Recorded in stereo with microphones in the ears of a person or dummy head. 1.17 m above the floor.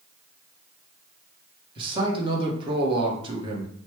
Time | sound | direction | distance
1.8 | a man speaking | 25° right (ahead or behind) | 1.1 m